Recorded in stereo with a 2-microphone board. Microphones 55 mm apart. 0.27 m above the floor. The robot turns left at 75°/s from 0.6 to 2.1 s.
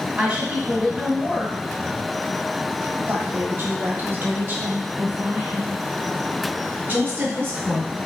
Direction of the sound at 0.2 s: 150° right.